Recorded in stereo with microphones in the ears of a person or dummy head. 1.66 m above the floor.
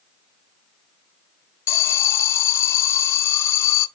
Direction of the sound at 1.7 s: 15° left (ahead or behind).